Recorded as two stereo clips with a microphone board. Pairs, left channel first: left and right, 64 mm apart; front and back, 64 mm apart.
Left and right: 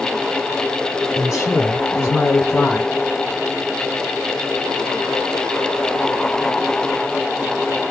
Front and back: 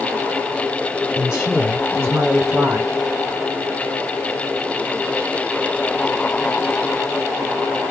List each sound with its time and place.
1.1 s a man speaking: 105° left, 2 m; by 2.9 s 155° left, 2 m